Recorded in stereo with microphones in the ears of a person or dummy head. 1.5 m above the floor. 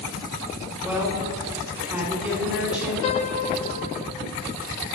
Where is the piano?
35° left (ahead or behind), 0.6 m.